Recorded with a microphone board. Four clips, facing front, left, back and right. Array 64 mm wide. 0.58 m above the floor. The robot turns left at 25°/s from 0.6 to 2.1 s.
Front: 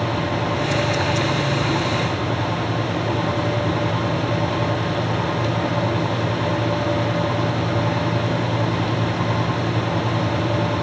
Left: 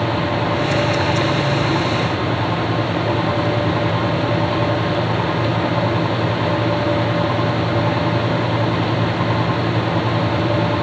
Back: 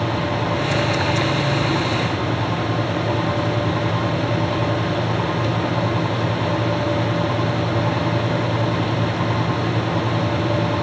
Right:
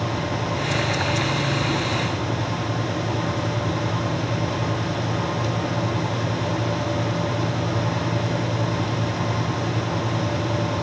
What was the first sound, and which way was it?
Only background noise.